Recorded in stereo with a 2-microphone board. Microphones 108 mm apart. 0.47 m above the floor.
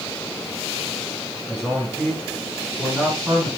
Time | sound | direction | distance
1.5 | a man speaking | 5° right (ahead or behind) | 5 m